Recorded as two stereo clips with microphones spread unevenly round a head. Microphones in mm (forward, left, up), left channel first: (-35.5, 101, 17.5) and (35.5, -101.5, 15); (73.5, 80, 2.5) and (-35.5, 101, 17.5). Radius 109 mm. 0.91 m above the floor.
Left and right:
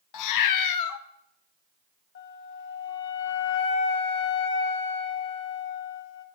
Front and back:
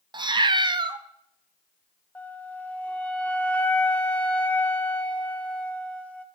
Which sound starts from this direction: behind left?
A cat meowing, at 0.1 s.